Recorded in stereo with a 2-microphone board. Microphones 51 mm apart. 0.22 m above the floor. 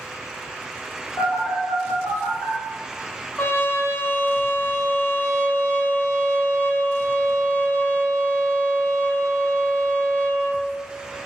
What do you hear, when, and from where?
1.2 s a phone buzzing: 75° left (ahead or behind), 1.8 m
3.4 s a trumpet: 50° left (ahead or behind), 0.6 m